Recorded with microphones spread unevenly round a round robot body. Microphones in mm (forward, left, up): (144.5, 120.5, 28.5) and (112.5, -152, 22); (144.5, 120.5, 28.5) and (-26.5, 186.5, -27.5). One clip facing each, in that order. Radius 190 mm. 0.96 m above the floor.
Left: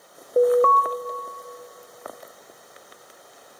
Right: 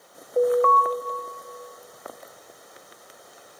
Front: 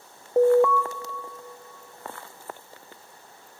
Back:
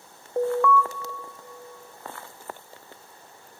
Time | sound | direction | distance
0.4 | an alarm | 60° left | 0.6 m